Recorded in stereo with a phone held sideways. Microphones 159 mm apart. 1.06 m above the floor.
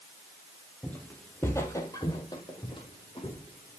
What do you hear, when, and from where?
0.8 s footsteps: 10° left (ahead or behind), 1.8 m; by 3.8 s 35° left (ahead or behind), 3 m